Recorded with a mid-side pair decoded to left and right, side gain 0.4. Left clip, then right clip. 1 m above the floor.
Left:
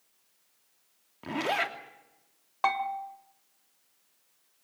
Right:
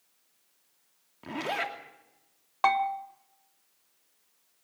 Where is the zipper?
20° left, 2.5 m.